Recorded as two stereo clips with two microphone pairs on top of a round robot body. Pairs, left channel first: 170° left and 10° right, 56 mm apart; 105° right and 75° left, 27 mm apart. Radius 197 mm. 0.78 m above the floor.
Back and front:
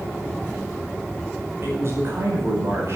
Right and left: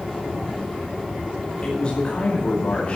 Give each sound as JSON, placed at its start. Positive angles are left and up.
{"t": 1.6, "sound": "a man speaking", "azimuth_deg": -50, "distance_m": 5.0}